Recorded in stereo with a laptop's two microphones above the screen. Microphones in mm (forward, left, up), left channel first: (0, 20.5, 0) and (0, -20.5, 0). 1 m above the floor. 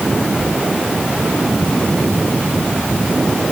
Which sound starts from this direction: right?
Whispering, at 0.4 s.